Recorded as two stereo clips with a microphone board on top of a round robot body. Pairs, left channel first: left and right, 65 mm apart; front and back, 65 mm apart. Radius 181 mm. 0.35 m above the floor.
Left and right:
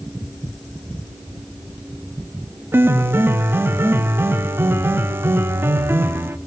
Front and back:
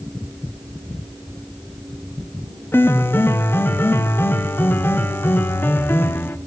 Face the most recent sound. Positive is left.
turn(degrees=-45)